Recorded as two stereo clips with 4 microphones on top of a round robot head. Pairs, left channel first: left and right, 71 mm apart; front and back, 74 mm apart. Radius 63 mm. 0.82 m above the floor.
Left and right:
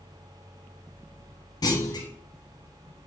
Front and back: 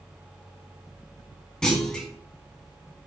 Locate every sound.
1.6 s a clunk: 80° left, 1.9 m